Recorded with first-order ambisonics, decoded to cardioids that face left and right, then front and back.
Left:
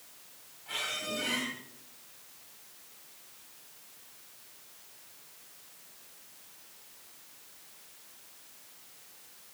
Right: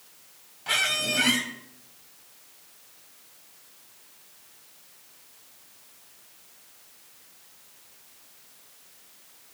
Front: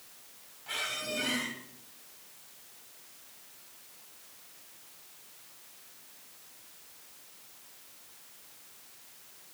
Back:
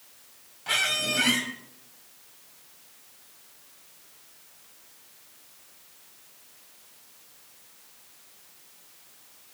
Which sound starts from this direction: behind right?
A squeak, at 0.7 s.